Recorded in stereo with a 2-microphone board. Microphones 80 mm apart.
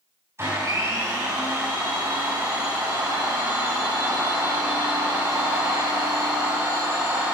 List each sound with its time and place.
0.4 s a blender: 35° right (ahead or behind), 4.5 m